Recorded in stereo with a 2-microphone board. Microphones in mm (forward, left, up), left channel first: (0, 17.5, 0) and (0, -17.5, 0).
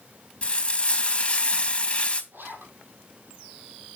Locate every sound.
0.4 s frying: 35° left (ahead or behind), 3 m
2.3 s a zipper: 90° right, 6 m